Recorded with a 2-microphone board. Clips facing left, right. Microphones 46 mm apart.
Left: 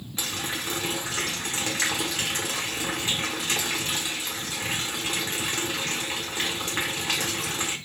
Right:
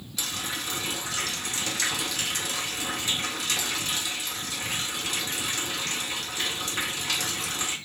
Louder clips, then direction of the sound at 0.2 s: Left 2 dB; 35° left (ahead or behind).